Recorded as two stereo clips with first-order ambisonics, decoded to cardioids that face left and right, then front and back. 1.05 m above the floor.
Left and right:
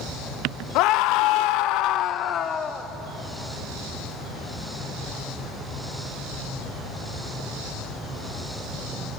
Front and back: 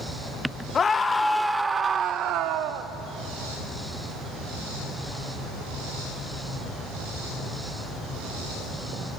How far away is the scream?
About 1.3 m.